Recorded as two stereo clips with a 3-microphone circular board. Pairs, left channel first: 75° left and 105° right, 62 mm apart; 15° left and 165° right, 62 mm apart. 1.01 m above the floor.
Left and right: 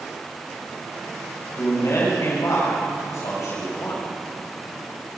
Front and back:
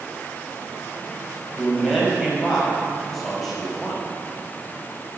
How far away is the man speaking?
About 5.5 m.